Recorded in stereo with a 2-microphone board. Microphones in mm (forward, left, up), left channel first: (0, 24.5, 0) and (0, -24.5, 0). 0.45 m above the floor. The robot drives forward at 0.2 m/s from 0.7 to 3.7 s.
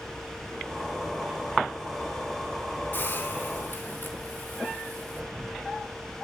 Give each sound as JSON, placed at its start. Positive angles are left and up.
{"t": 2.9, "sound": "a hiss", "side_deg": 45, "distance_m": 3.5}